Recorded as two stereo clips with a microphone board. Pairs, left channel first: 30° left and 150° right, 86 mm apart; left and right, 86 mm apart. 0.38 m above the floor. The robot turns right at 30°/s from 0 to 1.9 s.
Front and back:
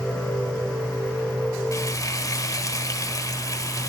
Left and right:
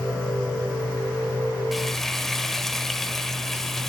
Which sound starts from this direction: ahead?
Frying, at 1.7 s.